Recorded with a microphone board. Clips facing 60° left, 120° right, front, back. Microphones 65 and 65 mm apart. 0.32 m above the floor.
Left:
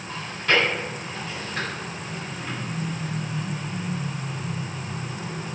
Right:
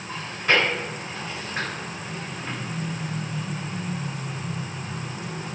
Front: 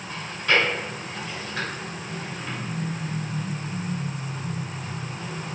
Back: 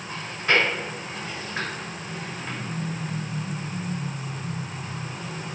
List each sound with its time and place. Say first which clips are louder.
0.1 s chewing: even, even; 155° right, 1.3 m